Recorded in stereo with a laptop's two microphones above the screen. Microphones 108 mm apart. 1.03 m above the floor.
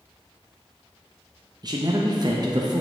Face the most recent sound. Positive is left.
turn(degrees=-40)  # may be behind; listen again after turning